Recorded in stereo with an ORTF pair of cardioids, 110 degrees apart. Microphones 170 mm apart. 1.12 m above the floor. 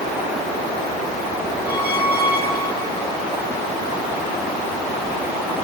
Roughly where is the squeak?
Ahead left.